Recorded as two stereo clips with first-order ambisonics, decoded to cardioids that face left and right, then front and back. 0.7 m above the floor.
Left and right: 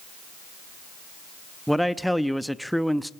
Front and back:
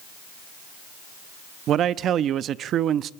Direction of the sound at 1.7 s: Straight behind.